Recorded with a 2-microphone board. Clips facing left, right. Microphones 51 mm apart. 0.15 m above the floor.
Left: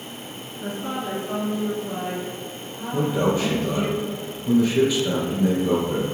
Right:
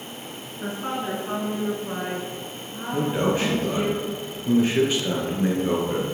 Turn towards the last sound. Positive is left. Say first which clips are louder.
# left 1 dB
turn(degrees=-45)  # may be behind; listen again after turning